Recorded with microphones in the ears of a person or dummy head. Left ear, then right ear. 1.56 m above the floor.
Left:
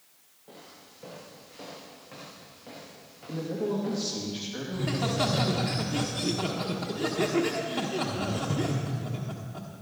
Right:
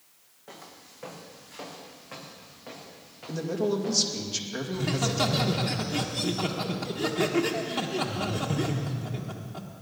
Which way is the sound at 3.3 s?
80° right.